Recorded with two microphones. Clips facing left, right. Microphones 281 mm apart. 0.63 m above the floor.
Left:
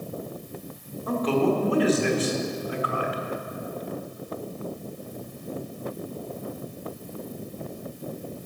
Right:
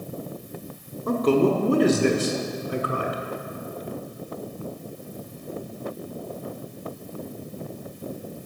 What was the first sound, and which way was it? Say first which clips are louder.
A man speaking: right 3 dB; 50° right (ahead or behind).